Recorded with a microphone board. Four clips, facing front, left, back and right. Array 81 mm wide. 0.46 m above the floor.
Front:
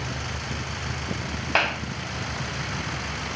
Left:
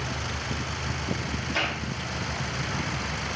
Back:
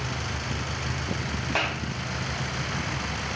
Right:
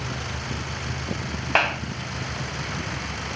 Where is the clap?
70° right, 3 m.